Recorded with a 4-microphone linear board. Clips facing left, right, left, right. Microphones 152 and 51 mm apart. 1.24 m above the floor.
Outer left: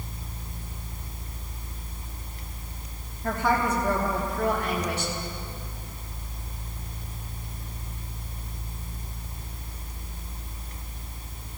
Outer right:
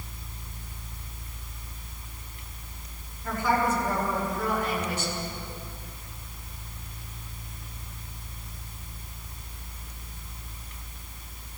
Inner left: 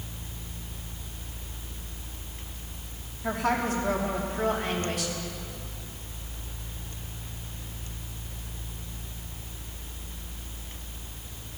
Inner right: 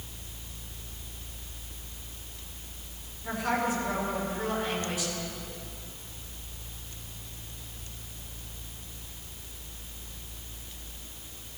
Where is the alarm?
I don't hear an alarm.